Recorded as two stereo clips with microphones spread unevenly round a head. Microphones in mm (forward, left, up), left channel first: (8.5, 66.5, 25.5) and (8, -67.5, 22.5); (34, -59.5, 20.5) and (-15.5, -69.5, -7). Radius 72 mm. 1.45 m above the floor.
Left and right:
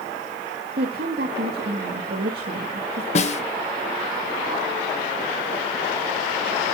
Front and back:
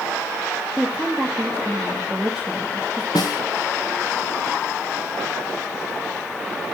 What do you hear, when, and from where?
0.8 s a woman speaking: 80° right, 2 m
3.1 s a snare drum: 50° left, 1.1 m